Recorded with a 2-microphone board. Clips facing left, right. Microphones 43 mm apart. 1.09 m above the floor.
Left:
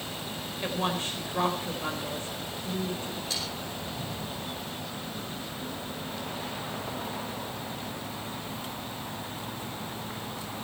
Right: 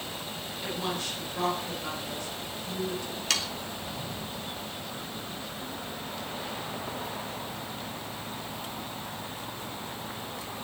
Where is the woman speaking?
35° left (ahead or behind), 4.5 m.